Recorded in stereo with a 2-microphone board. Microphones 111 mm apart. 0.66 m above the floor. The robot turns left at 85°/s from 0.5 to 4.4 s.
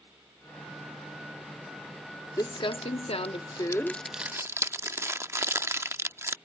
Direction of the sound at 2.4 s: 30° left (ahead or behind).